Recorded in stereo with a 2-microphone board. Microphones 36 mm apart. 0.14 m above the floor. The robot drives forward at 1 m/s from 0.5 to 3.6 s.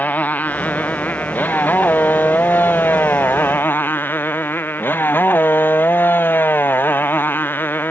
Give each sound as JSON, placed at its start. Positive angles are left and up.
{"t": 0.0, "sound": "a motorcycle", "side_deg": 55}